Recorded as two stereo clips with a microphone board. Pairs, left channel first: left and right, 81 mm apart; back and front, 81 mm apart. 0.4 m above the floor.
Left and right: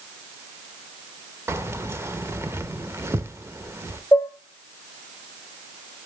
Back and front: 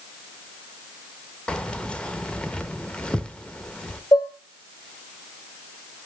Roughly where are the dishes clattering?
Behind left.